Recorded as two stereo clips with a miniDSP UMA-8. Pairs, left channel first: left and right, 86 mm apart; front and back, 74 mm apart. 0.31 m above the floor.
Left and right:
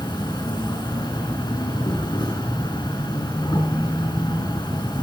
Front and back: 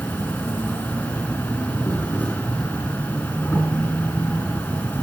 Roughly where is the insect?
Ahead left.